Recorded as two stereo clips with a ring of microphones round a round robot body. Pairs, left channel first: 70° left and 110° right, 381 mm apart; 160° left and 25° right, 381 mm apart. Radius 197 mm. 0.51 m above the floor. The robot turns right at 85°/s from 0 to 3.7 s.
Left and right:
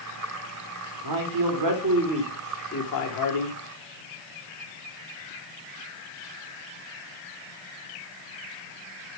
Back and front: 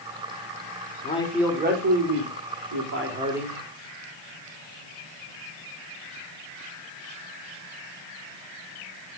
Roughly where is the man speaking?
Behind right.